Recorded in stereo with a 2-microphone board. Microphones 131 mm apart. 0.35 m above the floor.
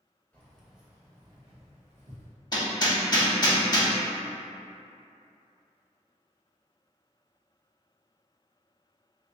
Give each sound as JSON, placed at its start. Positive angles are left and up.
{"t": 0.3, "sound": "keys jangling", "side_deg": 10, "distance_m": 1.0}
{"t": 2.5, "sound": "hammering", "side_deg": 35, "distance_m": 0.7}